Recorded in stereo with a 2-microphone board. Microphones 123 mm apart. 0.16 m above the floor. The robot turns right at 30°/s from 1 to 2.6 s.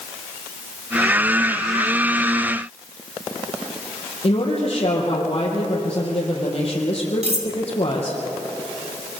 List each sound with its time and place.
4.2 s a woman speaking: 55° left (ahead or behind), 4.5 m
7.2 s cutlery clinking: 70° right (ahead or behind), 2.5 m